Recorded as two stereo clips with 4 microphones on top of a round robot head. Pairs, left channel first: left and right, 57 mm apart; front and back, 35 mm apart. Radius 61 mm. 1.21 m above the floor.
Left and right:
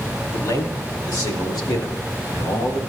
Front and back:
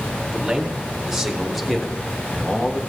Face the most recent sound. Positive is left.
turn(degrees=55)